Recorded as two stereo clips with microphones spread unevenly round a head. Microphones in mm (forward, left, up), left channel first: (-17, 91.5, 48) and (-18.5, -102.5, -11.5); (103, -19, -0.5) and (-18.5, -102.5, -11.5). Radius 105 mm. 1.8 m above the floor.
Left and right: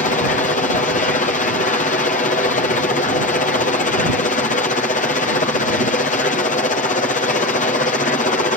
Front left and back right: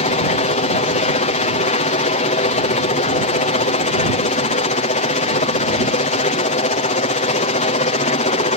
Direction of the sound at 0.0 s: 35° left.